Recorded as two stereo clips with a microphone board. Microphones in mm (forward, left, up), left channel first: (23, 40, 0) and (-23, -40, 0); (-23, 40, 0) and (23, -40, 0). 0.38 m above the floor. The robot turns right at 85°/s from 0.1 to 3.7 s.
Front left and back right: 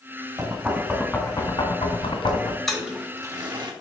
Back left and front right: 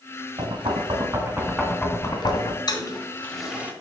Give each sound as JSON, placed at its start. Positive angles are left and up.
{"t": 0.4, "sound": "knocking", "azimuth_deg": -70, "distance_m": 1.3}
{"t": 2.7, "sound": "a toilet flushing", "azimuth_deg": 145, "distance_m": 1.2}